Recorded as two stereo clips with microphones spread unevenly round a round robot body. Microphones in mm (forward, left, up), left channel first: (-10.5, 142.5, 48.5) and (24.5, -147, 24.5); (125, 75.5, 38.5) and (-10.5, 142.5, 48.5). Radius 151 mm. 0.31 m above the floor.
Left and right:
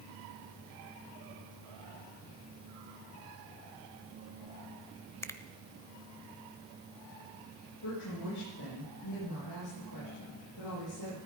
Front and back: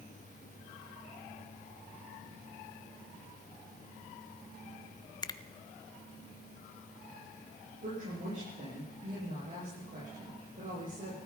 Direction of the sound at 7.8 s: 125° left.